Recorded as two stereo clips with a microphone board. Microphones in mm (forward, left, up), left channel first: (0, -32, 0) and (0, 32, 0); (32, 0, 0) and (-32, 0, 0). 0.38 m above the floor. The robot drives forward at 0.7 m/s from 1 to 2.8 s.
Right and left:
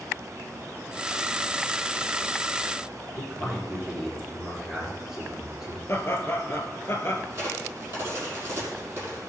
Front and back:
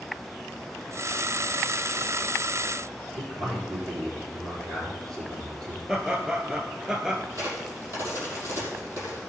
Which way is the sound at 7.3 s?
140° left.